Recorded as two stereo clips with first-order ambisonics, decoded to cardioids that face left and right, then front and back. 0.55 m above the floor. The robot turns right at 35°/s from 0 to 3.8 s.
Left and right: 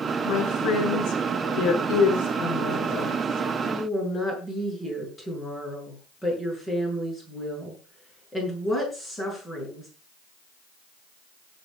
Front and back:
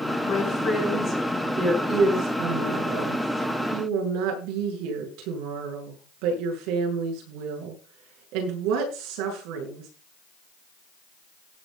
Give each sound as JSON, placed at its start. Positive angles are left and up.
{"t": 0.2, "sound": "a woman speaking", "azimuth_deg": 45, "distance_m": 7.0}